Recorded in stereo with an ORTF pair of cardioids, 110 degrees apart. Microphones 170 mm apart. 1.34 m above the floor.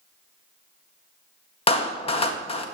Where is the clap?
35° left, 1.5 m.